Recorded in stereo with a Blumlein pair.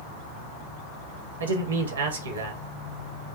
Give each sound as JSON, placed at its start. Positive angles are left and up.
{"t": 1.4, "sound": "a man speaking", "azimuth_deg": -65, "distance_m": 0.9}